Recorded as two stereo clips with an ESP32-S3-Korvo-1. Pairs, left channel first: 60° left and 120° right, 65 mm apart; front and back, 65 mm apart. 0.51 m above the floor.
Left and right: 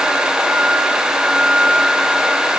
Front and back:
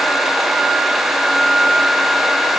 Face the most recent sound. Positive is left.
No sound to turn to.